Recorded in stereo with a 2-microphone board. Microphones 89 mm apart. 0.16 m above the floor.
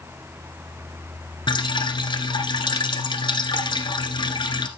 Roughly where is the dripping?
Left.